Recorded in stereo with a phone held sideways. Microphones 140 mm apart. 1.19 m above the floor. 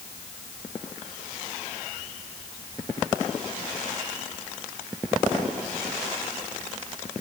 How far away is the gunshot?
No gunshot in this recording.